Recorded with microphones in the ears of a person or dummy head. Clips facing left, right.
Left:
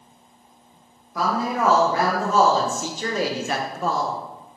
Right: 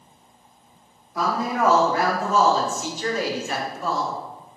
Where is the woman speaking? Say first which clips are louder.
Even; 65° left (ahead or behind), 1.6 m; by 4.2 s 30° left (ahead or behind), 0.8 m.